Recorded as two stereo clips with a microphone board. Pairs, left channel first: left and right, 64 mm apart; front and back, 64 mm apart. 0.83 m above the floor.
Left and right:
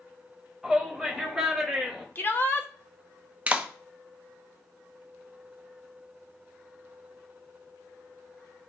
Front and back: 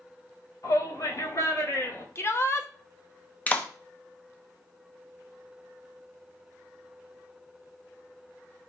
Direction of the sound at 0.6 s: 5° right.